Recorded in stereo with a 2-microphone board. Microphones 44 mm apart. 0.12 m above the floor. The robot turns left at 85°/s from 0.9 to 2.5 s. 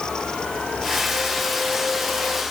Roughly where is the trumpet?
No trumpet in this recording.